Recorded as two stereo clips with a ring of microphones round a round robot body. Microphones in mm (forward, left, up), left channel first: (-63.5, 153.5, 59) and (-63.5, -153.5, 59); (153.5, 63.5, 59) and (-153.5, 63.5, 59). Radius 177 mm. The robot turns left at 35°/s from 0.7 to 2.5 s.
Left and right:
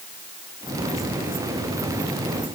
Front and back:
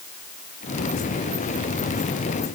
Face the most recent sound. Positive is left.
No sound to turn to.